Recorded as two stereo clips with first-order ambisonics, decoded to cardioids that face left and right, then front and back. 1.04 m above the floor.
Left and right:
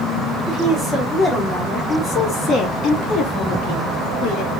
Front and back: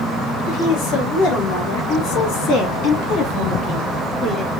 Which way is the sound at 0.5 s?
Straight ahead.